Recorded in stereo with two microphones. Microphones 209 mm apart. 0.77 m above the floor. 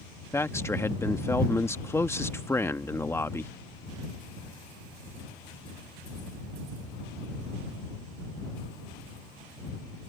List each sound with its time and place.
0.3 s a man speaking: 10° left (ahead or behind)